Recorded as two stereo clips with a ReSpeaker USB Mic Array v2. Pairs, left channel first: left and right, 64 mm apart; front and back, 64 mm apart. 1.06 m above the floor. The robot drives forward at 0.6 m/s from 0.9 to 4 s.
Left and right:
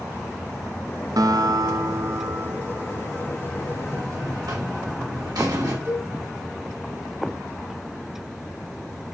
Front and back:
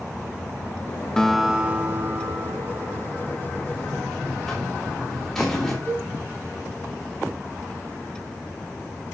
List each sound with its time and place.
1.2 s a guitar: 80° right, 0.6 m; by 3.5 s 155° right, 1.4 m
3.6 s a buzzer: 75° right, 2.5 m; by 5.8 s 80° right, 2.5 m
5.8 s a cowbell: 50° right, 2.5 m